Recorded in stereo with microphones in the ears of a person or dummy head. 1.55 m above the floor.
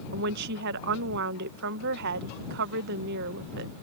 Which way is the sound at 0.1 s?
55° right (ahead or behind).